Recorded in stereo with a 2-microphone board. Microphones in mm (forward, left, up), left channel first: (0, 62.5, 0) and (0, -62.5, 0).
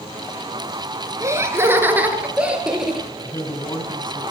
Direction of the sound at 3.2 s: 35° left (ahead or behind).